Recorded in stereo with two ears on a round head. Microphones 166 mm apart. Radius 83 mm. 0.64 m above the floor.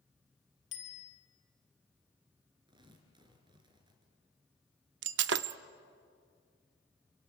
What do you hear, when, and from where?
0.7 s a bicycle bell: 70° left (ahead or behind), 4 m
2.7 s tearing paper: 25° right (ahead or behind), 3 m
5.0 s breaking glass: 65° right (ahead or behind), 0.7 m